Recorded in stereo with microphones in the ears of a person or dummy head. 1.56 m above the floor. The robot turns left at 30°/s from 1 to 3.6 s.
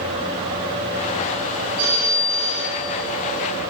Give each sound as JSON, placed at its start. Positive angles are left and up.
{"t": 1.8, "sound": "a phone ringing", "azimuth_deg": -90, "distance_m": 5.0}